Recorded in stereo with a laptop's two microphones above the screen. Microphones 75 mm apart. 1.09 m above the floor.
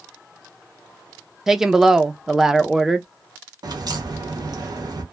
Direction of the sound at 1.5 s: 5° right (ahead or behind).